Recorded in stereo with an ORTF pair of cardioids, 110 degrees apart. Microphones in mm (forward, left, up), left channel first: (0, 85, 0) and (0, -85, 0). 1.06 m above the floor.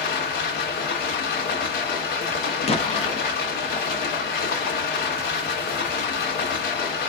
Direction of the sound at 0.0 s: 65° left.